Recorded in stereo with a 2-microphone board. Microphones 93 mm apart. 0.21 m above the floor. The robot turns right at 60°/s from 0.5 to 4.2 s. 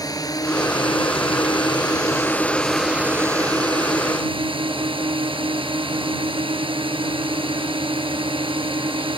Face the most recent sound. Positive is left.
turn(degrees=-95)